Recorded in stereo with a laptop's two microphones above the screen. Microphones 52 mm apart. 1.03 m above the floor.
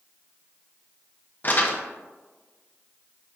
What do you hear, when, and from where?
1.4 s crumpling: 40° left (ahead or behind), 0.7 m